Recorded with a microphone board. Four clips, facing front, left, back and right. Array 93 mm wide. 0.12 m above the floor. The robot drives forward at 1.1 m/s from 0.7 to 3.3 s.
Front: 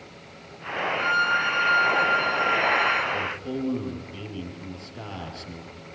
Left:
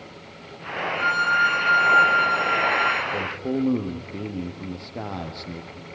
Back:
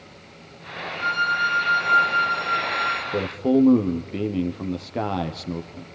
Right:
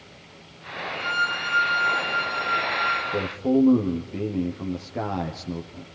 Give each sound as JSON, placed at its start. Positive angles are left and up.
{"t": 1.0, "sound": "a violin", "azimuth_deg": 80, "distance_m": 6.5}
{"t": 3.1, "sound": "a man speaking", "azimuth_deg": -170, "distance_m": 3.0}